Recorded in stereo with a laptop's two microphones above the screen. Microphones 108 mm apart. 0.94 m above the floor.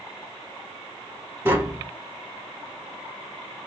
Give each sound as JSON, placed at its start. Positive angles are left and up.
{"t": 1.4, "sound": "tapping", "side_deg": -20, "distance_m": 0.7}